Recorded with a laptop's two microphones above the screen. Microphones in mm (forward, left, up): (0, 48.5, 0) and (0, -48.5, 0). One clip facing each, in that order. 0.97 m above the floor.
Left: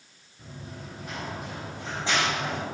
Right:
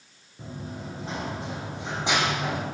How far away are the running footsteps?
About 3 m.